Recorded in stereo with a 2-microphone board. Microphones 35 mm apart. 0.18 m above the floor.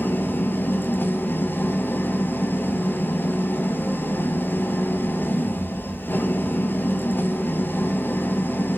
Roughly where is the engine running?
Left.